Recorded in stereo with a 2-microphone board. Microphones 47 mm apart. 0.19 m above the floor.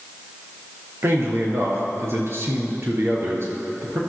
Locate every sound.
1.0 s a man speaking: 55° right (ahead or behind), 4 m